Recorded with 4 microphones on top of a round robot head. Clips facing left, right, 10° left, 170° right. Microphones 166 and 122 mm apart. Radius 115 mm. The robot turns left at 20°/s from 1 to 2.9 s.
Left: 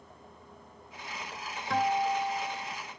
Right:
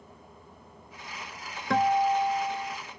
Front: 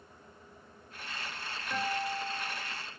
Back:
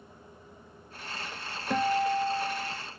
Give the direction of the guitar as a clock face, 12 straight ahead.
4 o'clock.